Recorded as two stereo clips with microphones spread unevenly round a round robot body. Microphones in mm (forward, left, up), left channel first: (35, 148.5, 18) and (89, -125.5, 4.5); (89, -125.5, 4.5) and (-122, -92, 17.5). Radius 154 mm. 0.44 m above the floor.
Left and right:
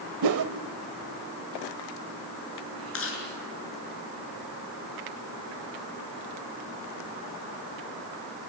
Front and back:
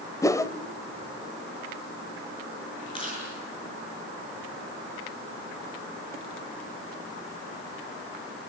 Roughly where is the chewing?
Ahead left.